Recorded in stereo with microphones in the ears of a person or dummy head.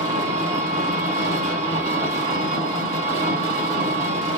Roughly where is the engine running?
Right.